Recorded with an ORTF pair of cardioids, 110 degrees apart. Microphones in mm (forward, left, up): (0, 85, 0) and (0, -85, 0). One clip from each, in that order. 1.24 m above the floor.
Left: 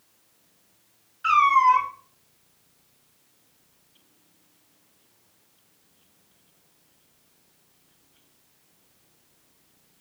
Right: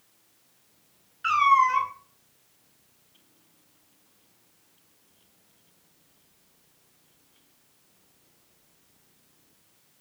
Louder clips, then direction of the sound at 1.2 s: Left 2 dB; straight ahead.